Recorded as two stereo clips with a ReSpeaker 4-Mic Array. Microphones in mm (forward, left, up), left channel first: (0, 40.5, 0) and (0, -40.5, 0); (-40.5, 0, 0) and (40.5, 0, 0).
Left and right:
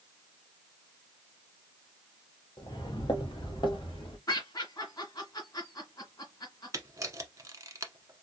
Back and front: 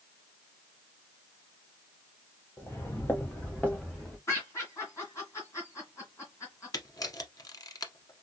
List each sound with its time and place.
2.6 s footsteps: 120° left, 1.5 m; by 4.2 s 105° left, 2.5 m
4.3 s laughter: 130° left, 2.5 m
6.7 s a camera shutter: 140° right, 1.0 m